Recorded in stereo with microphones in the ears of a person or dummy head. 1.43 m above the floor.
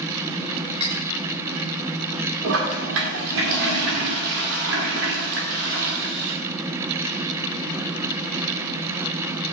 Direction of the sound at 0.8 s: 30° right (ahead or behind).